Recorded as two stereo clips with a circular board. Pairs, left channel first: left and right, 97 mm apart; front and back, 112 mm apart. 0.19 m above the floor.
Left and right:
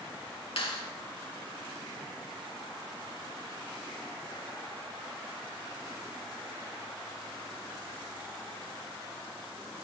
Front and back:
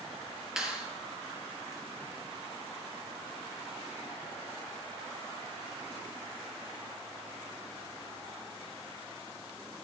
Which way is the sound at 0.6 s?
95° left.